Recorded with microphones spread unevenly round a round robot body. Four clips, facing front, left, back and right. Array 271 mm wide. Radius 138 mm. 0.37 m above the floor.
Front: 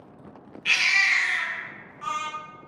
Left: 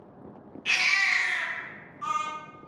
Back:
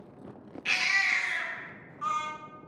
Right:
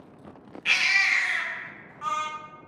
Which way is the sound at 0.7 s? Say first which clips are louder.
Right 2 dB, front 5 dB; 95° right.